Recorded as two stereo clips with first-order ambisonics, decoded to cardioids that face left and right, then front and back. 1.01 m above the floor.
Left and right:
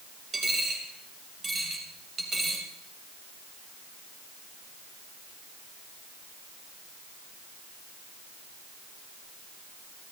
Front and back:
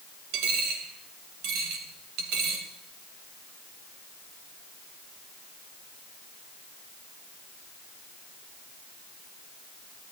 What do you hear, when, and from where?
0.3 s a dropped coin: 165° right, 2.5 m